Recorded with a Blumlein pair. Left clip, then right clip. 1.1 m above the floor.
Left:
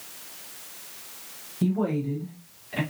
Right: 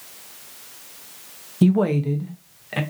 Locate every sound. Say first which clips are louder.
1.6 s a woman speaking: right 7 dB; 65° right, 0.5 m; by 2.8 s 30° right, 1.1 m